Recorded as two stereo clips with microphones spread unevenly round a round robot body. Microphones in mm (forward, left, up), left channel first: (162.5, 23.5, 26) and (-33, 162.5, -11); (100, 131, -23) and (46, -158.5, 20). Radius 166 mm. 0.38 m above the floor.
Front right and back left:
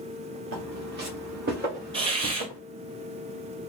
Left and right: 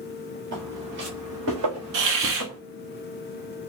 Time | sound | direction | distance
0.5 | footsteps | 160° right | 2.5 m
1.9 | a hiss | 140° right | 1.3 m